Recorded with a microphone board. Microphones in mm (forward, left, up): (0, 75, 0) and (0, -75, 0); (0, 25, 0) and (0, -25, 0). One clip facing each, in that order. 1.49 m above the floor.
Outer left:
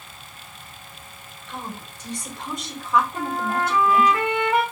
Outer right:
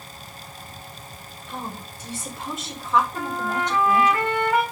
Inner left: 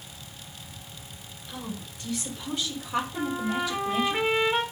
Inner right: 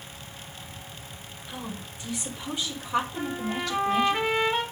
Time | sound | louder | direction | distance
1.5 | a woman speaking | outer right 1 dB, even | 10° right (ahead or behind) | 5.5 m
3.1 | a trumpet | outer left 2 dB, inner left 2 dB | 20° left (ahead or behind) | 4 m